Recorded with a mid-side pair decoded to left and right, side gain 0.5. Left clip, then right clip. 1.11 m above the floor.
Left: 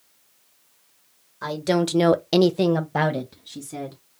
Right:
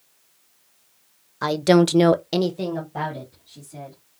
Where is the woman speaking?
50° right, 0.8 m; by 4.0 s 80° left, 1.7 m.